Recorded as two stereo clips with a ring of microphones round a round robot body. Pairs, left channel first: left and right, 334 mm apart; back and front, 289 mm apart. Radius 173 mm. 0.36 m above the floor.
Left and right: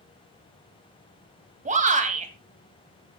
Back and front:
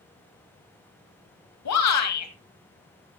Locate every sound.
1.6 s a shout: 155° right, 2.5 m